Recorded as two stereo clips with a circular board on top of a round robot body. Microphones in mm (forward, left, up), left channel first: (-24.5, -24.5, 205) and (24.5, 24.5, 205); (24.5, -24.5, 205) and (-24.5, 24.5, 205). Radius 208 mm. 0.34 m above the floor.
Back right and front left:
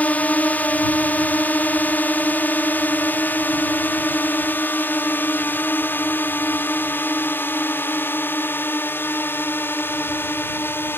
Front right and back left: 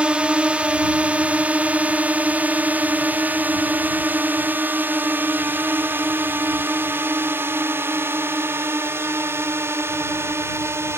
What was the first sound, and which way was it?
A drone, 170° right.